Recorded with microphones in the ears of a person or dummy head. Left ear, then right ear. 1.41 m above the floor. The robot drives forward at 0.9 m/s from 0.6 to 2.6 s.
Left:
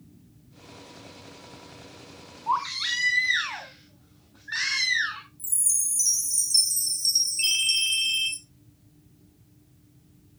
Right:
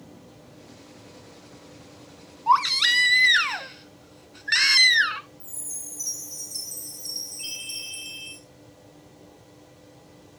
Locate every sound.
2.5 s a baby crying: 35° right (ahead or behind), 1.0 m
5.4 s a chime: 55° left (ahead or behind), 1.9 m
7.4 s a ringtone: 60° left (ahead or behind), 2 m